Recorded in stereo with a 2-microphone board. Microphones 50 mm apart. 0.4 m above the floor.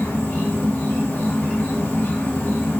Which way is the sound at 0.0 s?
45° left (ahead or behind).